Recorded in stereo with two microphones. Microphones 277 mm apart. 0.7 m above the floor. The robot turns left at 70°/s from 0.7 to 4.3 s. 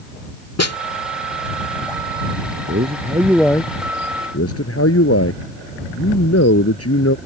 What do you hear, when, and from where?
0.6 s a snare drum: 70° left (ahead or behind)
2.7 s a man speaking: 130° right; by 7.2 s 115° left